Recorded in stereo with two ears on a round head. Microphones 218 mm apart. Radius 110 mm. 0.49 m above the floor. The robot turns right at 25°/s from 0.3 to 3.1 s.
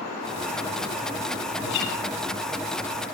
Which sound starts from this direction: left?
A guitar, at 1.6 s.